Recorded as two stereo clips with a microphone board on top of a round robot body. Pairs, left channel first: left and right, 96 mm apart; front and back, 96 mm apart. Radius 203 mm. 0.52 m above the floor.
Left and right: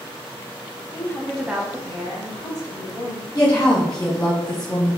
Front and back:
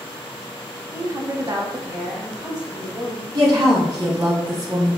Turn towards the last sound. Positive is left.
turn(degrees=150)